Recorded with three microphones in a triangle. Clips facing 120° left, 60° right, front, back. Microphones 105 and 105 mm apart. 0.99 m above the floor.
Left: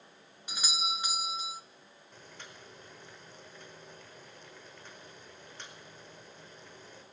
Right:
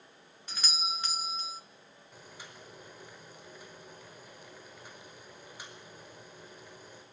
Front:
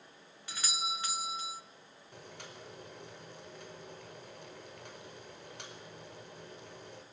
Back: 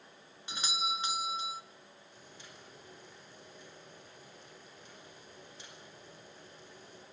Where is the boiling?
20° left, 4.5 m.